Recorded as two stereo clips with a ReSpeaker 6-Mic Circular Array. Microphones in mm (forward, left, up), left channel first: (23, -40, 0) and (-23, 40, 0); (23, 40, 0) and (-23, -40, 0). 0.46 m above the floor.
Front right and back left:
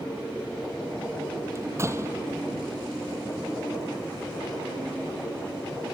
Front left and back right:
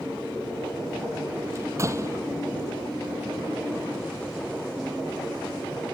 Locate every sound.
1.6 s a door slam: straight behind